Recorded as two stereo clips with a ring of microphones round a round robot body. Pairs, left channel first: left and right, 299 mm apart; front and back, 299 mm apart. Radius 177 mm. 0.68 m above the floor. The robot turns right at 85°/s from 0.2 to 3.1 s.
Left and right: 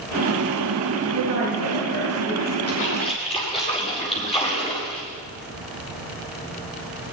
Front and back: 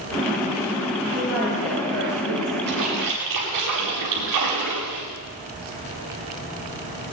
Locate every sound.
1.1 s a woman speaking: 115° right, 9.5 m; by 2.6 s 10° left, 9.5 m
2.7 s a splash: 125° left, 8 m; by 5.0 s 160° left, 8 m